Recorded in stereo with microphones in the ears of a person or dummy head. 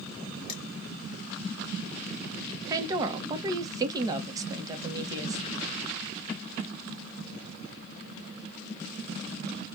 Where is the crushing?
30° left (ahead or behind), 2.0 m.